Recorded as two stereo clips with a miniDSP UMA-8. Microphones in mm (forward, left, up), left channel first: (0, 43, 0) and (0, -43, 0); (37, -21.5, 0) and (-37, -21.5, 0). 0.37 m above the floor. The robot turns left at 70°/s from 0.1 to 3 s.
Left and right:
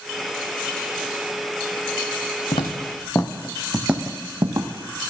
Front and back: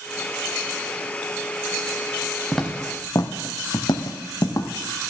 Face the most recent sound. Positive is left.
turn(degrees=-45)